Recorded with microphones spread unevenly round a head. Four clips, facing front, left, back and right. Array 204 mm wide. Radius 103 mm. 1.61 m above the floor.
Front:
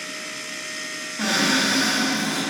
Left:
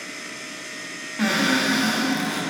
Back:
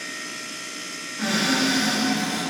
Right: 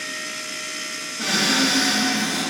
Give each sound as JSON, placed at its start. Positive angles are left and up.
{"t": 1.2, "sound": "a cupboard door", "azimuth_deg": 55, "distance_m": 0.5}